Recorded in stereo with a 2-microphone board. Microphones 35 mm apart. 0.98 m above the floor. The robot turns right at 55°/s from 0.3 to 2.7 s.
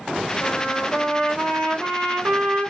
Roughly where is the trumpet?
Behind left.